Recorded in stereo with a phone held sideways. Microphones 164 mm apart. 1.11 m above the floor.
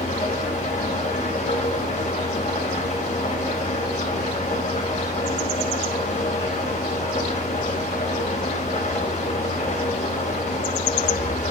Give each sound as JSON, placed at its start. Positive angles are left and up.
{"t": 0.0, "sound": "an engine running", "side_deg": 45, "distance_m": 3.5}